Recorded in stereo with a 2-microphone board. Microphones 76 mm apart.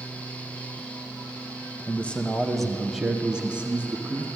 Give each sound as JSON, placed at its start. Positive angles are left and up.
{"t": 1.9, "sound": "a man speaking", "side_deg": 20, "distance_m": 0.9}